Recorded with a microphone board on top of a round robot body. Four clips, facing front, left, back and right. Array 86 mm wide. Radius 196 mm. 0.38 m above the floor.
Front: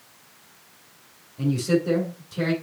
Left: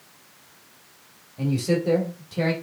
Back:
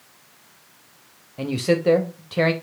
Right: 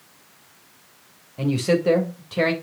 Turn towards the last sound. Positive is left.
turn(degrees=-145)